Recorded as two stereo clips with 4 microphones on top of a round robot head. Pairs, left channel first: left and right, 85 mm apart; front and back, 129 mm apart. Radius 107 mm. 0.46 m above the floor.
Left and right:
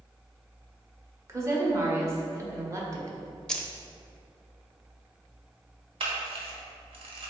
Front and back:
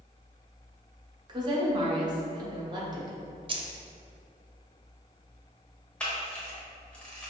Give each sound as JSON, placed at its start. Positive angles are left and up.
{"t": 1.3, "sound": "a woman speaking", "azimuth_deg": -135, "distance_m": 1.2}
{"t": 3.5, "sound": "keys jangling", "azimuth_deg": 170, "distance_m": 0.7}
{"t": 6.0, "sound": "a camera shutter", "azimuth_deg": -85, "distance_m": 1.0}